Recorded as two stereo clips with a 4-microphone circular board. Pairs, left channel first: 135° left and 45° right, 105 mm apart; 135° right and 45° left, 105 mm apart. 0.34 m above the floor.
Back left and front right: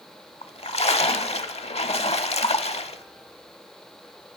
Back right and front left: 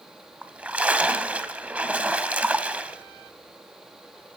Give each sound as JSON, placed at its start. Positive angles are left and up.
{"t": 0.4, "sound": "a splash", "azimuth_deg": 120, "distance_m": 0.6}